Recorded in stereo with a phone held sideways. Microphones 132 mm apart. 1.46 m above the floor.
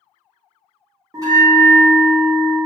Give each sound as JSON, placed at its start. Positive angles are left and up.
{"t": 1.1, "sound": "a bell", "side_deg": -25, "distance_m": 0.8}